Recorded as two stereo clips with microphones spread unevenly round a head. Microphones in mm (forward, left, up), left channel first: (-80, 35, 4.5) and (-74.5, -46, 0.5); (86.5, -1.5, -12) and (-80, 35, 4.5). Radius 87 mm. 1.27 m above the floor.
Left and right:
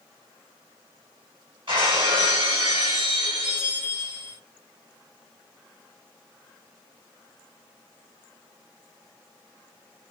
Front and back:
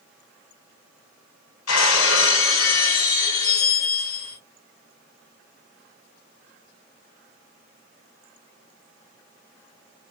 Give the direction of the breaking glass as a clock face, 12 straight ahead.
1 o'clock.